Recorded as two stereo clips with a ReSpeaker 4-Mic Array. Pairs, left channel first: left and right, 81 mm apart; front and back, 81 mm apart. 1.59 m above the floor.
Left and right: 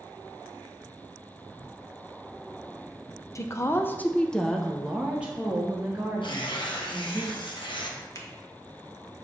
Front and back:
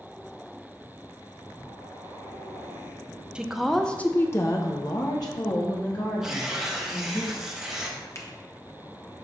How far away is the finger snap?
About 1.1 m.